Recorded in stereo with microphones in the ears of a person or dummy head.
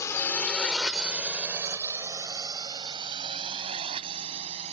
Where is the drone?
15° left (ahead or behind); by 4.7 s 35° right (ahead or behind).